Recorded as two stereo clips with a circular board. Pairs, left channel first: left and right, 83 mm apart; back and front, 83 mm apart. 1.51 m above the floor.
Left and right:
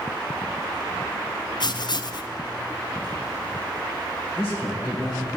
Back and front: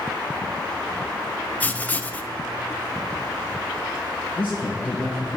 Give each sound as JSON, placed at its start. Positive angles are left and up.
{"t": 1.6, "sound": "writing", "azimuth_deg": 110, "distance_m": 0.5}
{"t": 4.4, "sound": "a man speaking", "azimuth_deg": -175, "distance_m": 1.8}